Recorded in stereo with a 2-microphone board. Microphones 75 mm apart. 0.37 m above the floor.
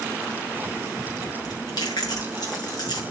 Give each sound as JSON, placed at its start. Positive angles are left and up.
{"t": 1.4, "sound": "chewing", "side_deg": 70, "distance_m": 6.5}